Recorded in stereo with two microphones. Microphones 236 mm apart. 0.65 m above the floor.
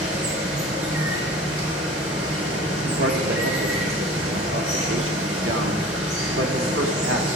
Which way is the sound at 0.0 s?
70° right (ahead or behind).